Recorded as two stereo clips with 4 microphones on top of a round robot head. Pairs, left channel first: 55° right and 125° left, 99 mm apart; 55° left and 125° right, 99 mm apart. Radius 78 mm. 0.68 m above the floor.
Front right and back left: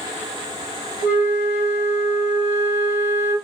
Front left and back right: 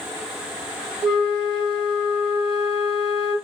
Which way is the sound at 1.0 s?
45° right.